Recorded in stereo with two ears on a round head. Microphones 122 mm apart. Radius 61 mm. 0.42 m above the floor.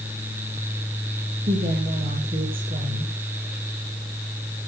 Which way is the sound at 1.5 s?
45° right (ahead or behind).